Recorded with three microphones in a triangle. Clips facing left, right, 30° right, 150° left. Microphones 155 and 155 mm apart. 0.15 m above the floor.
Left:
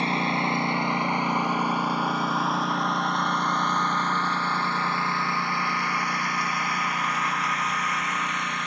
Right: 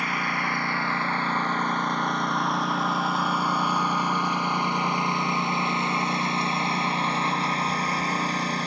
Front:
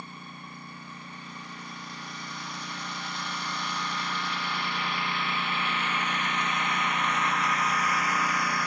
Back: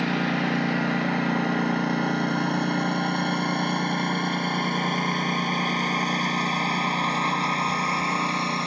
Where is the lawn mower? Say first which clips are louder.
Left 4 dB, back 20 dB; 155° left; by 8.7 s 145° right.